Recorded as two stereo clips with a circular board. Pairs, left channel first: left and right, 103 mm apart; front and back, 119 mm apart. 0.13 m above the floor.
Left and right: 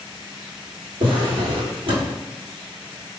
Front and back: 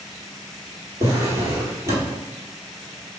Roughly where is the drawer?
Behind right.